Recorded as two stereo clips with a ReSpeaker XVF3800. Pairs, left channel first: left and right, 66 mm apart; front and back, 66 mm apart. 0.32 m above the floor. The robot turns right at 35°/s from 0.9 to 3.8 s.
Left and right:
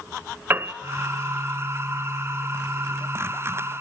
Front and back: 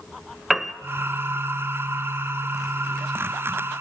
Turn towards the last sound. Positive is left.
turn(degrees=5)